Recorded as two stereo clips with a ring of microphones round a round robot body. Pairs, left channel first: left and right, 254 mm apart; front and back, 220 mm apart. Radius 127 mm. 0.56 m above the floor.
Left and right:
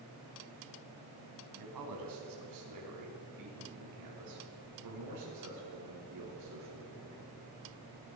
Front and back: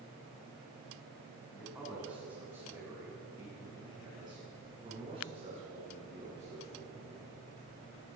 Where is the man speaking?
95° right, 4 m; by 7.3 s 115° right, 7 m.